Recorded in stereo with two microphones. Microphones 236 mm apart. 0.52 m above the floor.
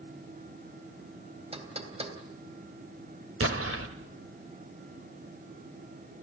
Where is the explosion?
65° right (ahead or behind), 1.7 m.